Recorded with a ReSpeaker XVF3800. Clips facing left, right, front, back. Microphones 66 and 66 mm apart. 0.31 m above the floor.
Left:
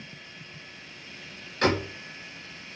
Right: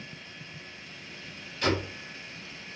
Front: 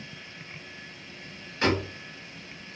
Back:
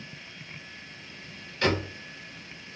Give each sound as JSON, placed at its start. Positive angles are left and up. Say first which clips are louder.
{"t": 1.6, "sound": "a door slam", "louder": "left 3 dB, front 1 dB", "azimuth_deg": 65, "distance_m": 2.5}